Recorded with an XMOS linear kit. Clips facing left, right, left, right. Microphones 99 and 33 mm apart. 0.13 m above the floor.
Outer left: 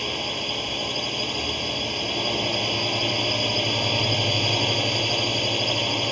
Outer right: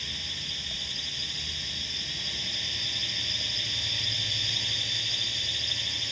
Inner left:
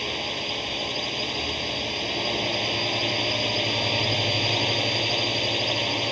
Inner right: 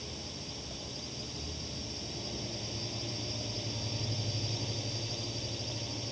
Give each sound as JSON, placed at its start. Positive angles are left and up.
{"t": 0.0, "sound": "a drone", "side_deg": 60}